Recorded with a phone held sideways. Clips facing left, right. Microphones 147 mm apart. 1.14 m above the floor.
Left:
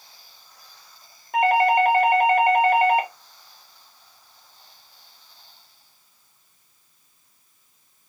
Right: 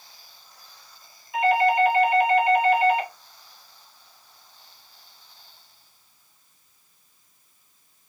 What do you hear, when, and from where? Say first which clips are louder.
1.3 s a doorbell: left 2 dB; 55° left (ahead or behind), 0.7 m